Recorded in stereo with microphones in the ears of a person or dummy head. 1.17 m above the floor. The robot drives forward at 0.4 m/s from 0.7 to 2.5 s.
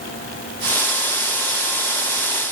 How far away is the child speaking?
I don't hear a child speaking.